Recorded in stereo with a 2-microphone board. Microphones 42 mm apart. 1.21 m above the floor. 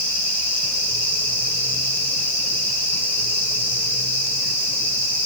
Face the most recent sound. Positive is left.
No sound to turn to.